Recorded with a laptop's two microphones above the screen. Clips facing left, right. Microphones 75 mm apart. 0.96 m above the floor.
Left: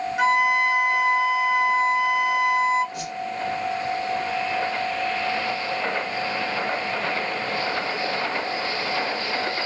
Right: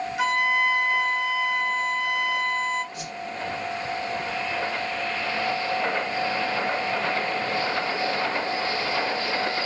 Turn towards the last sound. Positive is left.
turn(degrees=60)  # may be behind; listen again after turning